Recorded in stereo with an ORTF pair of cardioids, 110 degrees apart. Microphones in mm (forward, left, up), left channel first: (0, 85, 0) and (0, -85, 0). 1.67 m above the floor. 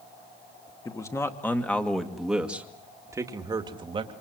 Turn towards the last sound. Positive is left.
turn(degrees=-30)